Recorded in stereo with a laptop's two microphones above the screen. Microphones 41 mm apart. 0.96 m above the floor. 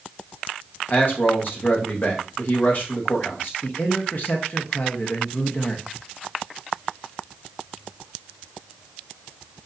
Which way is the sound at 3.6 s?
50° left (ahead or behind).